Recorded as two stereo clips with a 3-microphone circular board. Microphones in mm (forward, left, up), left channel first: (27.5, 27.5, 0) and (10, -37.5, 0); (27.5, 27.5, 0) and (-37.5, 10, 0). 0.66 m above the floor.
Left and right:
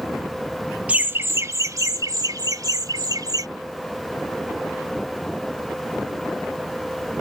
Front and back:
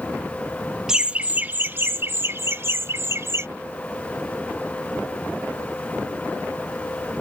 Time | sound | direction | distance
0.9 | laughter | 100° right | ?